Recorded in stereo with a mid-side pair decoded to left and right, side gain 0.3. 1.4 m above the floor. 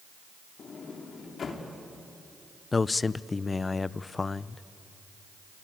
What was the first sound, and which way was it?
A sliding door, 65° left.